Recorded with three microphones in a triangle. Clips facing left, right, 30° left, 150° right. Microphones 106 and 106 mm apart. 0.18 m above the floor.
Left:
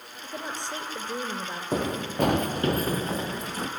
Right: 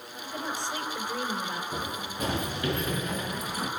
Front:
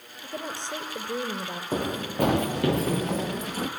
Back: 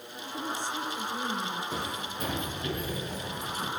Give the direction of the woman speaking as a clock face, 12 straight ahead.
11 o'clock.